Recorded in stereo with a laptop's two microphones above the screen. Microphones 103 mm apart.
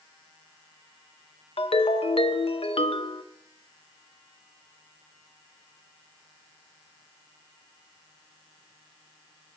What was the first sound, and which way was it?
A ringtone, 65° left (ahead or behind).